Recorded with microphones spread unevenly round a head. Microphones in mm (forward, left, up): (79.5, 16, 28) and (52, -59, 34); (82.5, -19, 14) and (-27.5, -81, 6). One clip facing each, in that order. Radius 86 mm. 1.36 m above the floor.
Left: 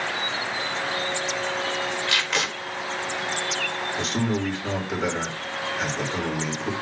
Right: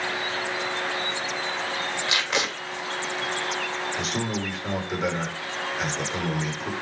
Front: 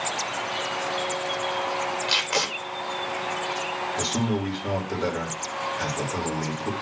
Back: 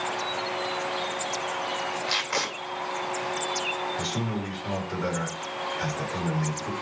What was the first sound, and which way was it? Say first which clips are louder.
Tape being pulled: even, front 2 dB; 35° right.